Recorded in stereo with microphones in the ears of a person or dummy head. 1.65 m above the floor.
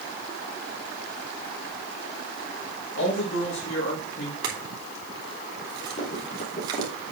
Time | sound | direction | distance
3.0 | a man speaking | 70° left (ahead or behind) | 2.5 m
4.4 | a clink | 25° right (ahead or behind) | 2.5 m
6.0 | running footsteps | 35° left (ahead or behind) | 3 m